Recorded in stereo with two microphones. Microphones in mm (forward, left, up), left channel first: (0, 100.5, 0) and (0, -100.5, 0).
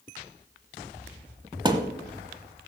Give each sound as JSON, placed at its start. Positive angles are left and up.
{"t": 1.6, "sound": "a thud", "side_deg": -20, "distance_m": 1.0}